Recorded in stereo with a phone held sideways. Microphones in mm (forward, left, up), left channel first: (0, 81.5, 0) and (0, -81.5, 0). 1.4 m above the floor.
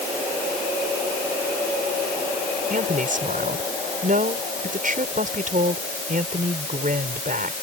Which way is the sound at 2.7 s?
50° right (ahead or behind).